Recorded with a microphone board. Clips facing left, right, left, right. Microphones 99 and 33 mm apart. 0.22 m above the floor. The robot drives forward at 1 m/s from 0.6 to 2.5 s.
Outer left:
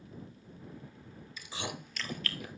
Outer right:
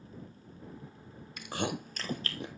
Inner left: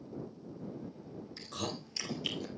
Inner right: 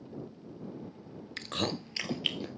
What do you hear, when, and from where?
1.4 s chewing: 65° right (ahead or behind), 0.8 m; by 2.5 s 30° right (ahead or behind), 1.6 m